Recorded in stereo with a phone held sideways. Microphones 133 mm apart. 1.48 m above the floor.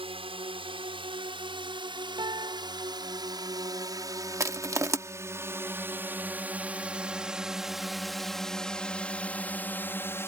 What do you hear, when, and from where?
0.0 s a drone: 45° right (ahead or behind); by 10.3 s 20° left (ahead or behind)
2.2 s a piano: 35° right (ahead or behind)
4.4 s crushing: 25° right (ahead or behind)